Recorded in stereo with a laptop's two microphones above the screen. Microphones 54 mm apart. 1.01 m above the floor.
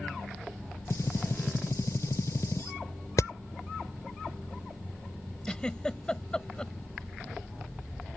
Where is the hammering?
85° left.